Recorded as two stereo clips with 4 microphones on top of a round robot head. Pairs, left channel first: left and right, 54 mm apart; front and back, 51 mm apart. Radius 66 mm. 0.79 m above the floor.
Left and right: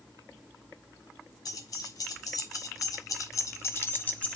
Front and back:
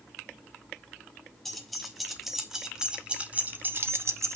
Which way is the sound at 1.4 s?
90° left.